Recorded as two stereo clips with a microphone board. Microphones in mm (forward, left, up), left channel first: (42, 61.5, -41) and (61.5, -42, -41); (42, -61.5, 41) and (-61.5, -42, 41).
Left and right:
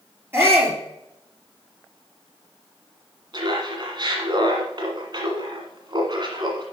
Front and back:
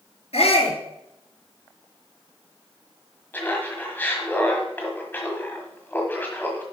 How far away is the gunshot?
No gunshot in this recording.